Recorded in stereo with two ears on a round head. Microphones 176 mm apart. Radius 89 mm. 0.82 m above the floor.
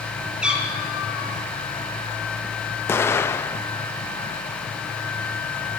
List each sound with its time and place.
0.4 s a cat meowing: 5° right (ahead or behind), 5 m
2.9 s an explosion: 15° left (ahead or behind), 0.7 m